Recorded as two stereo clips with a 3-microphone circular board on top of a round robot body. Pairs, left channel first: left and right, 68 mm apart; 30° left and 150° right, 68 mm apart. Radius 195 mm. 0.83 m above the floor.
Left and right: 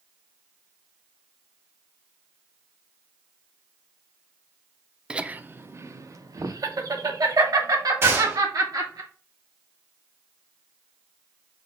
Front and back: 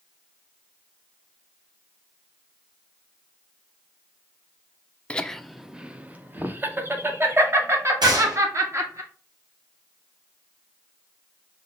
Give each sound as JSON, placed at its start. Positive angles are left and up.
{"t": 5.1, "sound": "laughter", "azimuth_deg": -25, "distance_m": 0.7}
{"t": 8.0, "sound": "a gunshot", "azimuth_deg": -145, "distance_m": 1.6}